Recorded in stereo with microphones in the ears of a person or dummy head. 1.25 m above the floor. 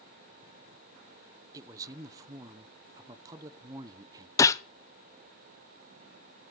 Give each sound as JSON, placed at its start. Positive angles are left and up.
{"t": 1.5, "sound": "a man speaking", "side_deg": -20, "distance_m": 0.7}
{"t": 4.4, "sound": "a gunshot", "side_deg": 20, "distance_m": 0.6}